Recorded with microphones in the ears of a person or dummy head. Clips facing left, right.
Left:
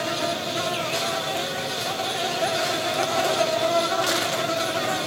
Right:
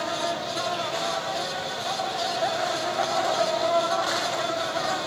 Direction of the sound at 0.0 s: 40° left (ahead or behind).